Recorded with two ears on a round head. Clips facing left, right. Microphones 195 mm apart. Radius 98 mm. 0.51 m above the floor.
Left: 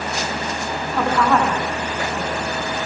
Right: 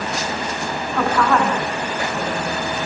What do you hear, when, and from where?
0.9 s a woman speaking: 5° left (ahead or behind), 6.5 m